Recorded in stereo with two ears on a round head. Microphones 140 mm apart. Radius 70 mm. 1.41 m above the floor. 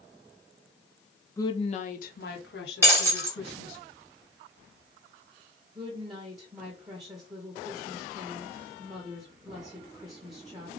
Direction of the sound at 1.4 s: 20° left (ahead or behind).